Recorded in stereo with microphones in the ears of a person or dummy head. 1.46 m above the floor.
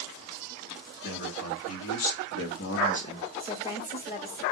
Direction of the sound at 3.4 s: 20° left (ahead or behind).